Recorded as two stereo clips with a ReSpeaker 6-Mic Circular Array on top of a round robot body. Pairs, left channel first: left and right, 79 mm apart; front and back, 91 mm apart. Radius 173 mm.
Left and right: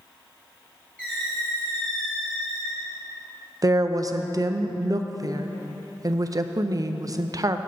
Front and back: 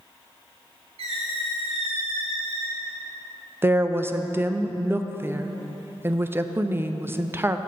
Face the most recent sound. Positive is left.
turn(degrees=-120)